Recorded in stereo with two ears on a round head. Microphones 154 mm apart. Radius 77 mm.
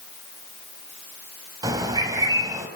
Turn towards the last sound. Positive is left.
turn(degrees=-20)  # may be behind; listen again after turning